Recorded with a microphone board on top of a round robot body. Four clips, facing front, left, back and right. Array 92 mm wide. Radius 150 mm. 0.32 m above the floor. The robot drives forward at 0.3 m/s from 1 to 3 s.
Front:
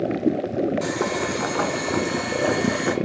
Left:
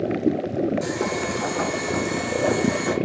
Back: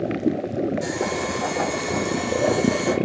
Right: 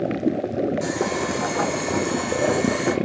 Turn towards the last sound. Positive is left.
turn(degrees=-25)